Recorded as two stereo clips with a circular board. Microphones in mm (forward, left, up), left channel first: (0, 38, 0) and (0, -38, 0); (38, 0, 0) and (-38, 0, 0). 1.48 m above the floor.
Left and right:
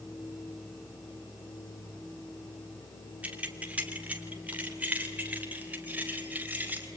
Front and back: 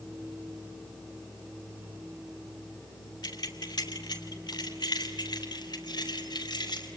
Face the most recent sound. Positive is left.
turn(degrees=-20)